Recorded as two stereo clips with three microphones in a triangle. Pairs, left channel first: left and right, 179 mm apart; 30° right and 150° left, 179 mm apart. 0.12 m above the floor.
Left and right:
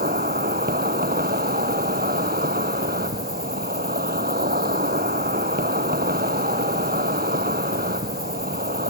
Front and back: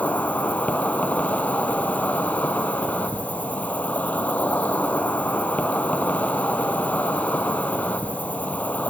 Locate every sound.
0.0 s an insect: 110° right, 0.9 m